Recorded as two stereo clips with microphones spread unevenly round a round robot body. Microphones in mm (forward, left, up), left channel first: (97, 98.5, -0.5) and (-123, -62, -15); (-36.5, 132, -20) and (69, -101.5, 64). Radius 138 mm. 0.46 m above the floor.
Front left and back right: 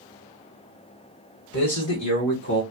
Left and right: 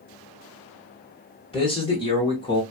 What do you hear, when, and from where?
1.5 s a man speaking: 60° left, 2 m; by 2.6 s 65° left, 1.5 m